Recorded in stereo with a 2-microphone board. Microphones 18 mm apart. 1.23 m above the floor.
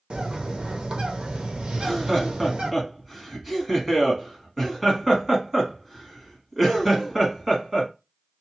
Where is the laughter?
5° right (ahead or behind), 1.5 m.